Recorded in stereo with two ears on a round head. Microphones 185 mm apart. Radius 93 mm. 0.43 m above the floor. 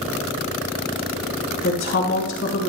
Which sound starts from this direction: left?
A woman speaking, at 1.6 s.